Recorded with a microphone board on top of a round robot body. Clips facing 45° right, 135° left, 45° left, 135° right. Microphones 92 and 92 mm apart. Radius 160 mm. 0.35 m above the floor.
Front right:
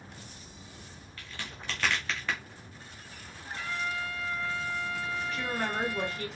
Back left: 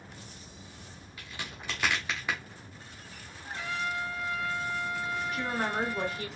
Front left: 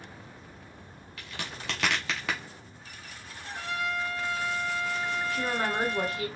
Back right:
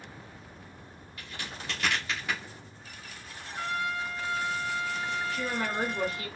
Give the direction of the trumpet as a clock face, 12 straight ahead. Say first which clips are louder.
Back left 1 dB, back right 1 dB; 10 o'clock.